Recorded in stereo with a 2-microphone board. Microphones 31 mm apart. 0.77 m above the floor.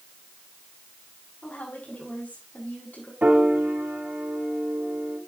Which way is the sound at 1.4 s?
55° left (ahead or behind).